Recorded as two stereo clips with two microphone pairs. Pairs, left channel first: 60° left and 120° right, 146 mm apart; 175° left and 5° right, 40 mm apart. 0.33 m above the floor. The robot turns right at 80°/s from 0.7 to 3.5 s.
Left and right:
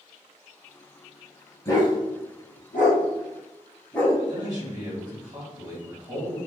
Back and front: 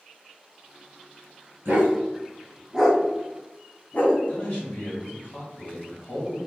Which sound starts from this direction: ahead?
A dog barking, at 1.6 s.